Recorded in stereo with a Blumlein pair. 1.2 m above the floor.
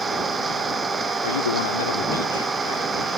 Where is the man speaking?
65° left.